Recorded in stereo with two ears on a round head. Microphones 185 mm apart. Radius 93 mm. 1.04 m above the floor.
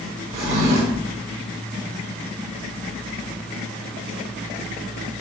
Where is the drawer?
30° right (ahead or behind), 1.3 m.